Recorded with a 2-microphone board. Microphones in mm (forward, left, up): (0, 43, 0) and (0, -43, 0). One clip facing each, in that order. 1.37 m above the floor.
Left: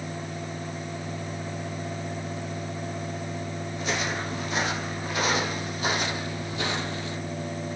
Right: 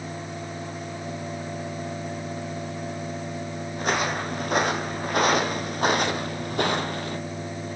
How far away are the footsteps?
About 3.5 m.